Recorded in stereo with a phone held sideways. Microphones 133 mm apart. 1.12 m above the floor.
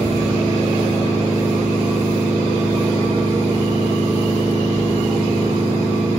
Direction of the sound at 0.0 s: 10° left (ahead or behind).